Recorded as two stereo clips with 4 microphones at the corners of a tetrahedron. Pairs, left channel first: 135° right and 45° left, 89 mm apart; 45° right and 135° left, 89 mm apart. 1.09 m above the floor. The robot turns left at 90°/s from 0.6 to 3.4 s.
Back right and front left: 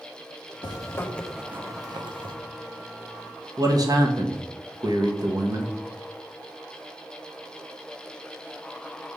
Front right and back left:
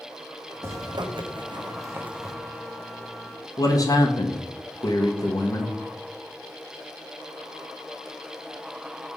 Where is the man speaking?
Straight ahead, 1.2 m.